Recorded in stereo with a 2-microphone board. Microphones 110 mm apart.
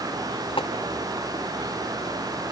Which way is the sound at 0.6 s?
55° left (ahead or behind).